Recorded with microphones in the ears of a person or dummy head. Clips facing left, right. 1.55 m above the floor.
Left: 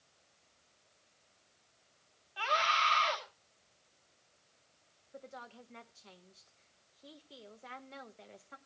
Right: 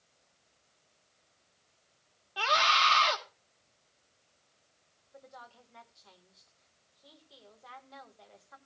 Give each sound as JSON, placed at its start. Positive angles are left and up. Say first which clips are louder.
{"t": 2.4, "sound": "a scream", "louder": "right 4 dB", "side_deg": -60, "distance_m": 1.3}
{"t": 5.1, "sound": "a woman speaking", "louder": "left 3 dB", "side_deg": 35, "distance_m": 1.3}